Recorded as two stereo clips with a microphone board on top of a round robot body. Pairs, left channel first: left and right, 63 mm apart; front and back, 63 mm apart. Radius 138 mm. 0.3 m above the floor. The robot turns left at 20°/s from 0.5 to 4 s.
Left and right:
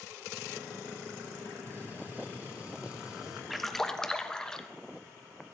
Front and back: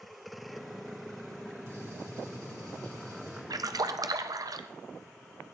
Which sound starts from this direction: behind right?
A gunshot, at 1.7 s.